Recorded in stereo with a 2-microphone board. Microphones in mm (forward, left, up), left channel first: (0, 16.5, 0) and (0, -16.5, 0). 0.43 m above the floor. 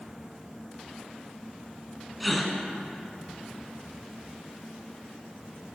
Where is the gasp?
Centre (ahead or behind), 1.0 m.